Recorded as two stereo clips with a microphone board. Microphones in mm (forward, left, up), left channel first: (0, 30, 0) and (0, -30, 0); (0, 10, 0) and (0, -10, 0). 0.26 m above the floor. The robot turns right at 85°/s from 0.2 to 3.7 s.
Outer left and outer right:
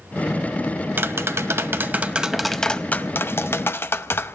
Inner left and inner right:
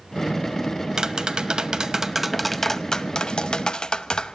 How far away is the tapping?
About 0.6 m.